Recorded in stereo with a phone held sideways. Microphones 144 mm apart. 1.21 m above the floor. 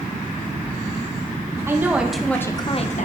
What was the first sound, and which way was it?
A woman speaking, 20° right (ahead or behind).